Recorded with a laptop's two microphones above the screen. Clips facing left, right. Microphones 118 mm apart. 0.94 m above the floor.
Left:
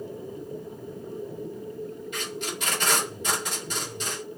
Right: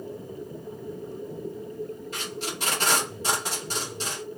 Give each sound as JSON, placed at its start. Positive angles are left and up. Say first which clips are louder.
{"t": 2.1, "sound": "tape being pulled", "louder": "left 1 dB", "side_deg": -35, "distance_m": 1.5}